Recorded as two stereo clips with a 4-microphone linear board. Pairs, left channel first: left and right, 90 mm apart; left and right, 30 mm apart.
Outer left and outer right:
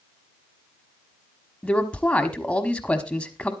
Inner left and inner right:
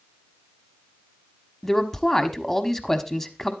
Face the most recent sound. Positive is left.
turn(degrees=15)  # may be behind; listen again after turning